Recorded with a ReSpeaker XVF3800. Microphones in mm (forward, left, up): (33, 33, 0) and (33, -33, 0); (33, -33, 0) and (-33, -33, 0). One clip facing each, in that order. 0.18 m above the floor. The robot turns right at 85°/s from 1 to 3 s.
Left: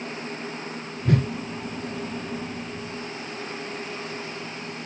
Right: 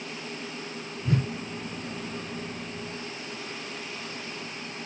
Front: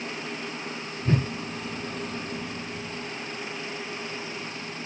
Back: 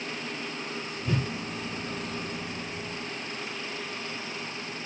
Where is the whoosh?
50° left, 0.6 m; by 1.3 s 70° left, 0.6 m.